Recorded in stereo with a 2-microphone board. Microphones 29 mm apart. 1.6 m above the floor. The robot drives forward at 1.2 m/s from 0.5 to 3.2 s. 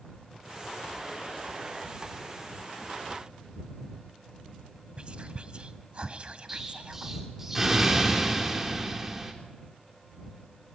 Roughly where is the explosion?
Centre.